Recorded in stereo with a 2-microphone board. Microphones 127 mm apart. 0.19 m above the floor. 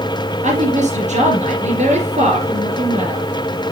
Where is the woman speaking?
65° right (ahead or behind), 4 m.